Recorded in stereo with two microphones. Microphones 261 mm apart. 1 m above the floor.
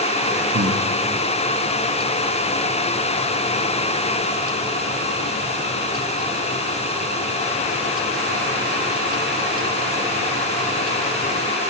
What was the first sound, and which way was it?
Breathing, 65° right (ahead or behind).